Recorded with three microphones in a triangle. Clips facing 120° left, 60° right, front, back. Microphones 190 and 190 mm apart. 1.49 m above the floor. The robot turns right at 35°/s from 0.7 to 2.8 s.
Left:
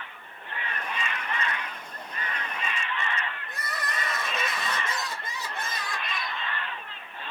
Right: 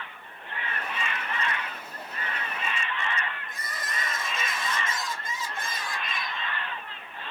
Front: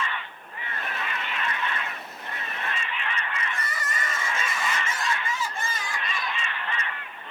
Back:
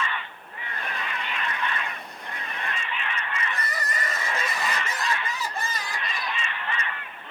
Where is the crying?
135° left, 0.7 m.